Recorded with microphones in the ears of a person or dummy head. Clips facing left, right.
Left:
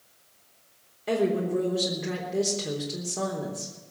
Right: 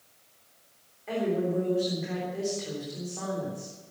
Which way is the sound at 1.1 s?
50° left (ahead or behind).